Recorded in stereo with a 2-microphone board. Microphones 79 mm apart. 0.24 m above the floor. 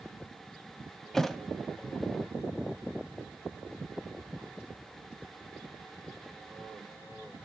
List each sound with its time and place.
1.1 s a thud: 5° left (ahead or behind), 0.6 m